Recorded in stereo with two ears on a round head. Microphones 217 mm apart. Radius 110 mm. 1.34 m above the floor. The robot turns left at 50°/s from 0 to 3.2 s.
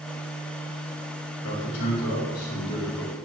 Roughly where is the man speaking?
Left.